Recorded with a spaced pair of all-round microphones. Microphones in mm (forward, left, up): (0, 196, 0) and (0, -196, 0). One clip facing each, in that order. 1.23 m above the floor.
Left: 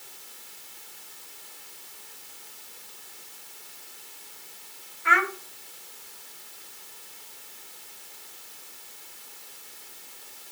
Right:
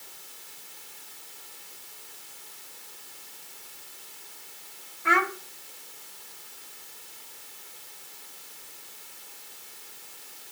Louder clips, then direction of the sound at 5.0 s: Right 2 dB; 55° right (ahead or behind).